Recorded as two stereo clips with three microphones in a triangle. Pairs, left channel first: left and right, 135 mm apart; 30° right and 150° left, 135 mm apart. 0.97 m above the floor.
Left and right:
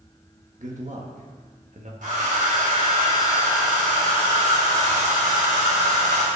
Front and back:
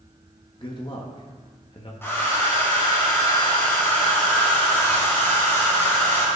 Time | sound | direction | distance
0.6 | a man speaking | 80° right | 1.5 m
2.0 | a hair dryer | 100° right | 3 m